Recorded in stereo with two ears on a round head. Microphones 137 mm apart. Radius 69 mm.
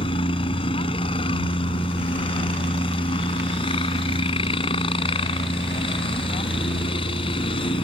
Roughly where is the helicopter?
Left.